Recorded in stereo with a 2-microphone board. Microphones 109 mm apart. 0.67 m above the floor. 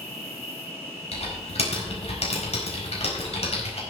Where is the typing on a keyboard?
70° left (ahead or behind), 4 m.